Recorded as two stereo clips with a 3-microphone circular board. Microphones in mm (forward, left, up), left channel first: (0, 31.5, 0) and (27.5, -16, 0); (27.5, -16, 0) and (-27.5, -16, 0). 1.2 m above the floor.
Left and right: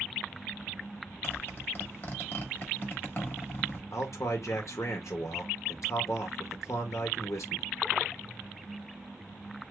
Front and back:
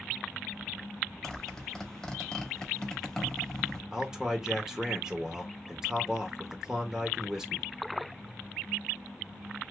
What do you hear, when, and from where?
1.2 s a zipper: 80° left, 1.2 m
3.9 s a man speaking: 105° left, 1.0 m